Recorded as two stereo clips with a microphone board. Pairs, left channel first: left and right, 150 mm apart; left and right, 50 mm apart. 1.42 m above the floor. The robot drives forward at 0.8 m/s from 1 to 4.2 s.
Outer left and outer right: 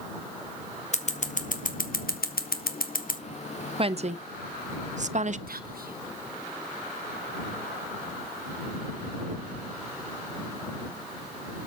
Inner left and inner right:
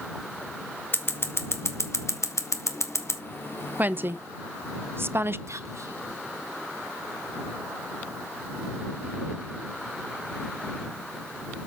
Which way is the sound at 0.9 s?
50° left (ahead or behind).